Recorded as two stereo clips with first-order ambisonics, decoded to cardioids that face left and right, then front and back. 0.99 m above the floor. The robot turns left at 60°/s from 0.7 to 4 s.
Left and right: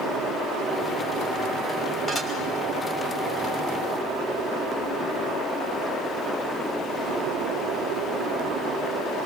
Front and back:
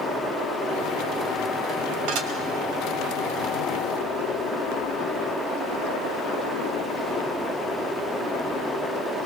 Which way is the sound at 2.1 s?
160° left.